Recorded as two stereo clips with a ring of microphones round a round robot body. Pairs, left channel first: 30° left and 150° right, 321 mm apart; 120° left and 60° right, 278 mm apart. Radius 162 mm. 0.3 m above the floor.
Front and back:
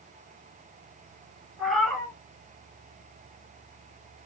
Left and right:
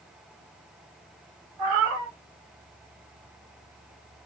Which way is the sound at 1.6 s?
60° right.